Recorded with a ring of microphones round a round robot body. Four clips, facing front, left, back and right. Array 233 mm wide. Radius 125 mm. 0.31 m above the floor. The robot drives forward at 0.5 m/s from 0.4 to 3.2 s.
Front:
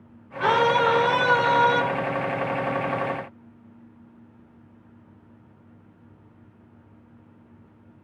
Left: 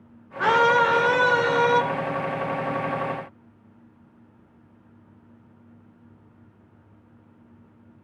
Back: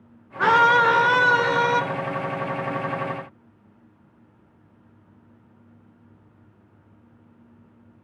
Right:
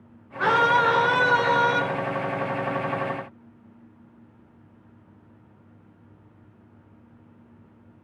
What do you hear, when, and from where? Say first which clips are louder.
0.4 s a scream: left 1 dB, back 3 dB; 175° left, 4.5 m